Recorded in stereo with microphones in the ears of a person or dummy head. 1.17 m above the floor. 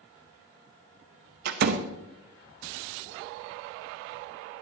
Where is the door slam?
65° right (ahead or behind), 0.7 m.